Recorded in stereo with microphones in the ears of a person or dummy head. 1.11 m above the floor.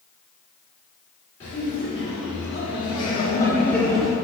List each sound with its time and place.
1.4 s laughter: 30° left (ahead or behind), 1.2 m; by 4.2 s 5° right (ahead or behind), 0.6 m